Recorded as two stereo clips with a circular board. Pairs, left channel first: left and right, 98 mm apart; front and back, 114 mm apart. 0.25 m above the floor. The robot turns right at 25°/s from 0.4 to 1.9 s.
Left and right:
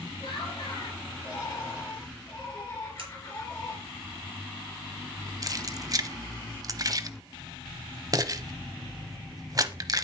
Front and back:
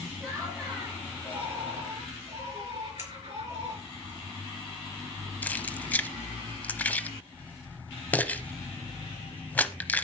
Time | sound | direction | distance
0.2 | laughter | 110° left | 5 m
3.0 | scissors | 110° right | 5 m
5.4 | keys jangling | 70° right | 0.8 m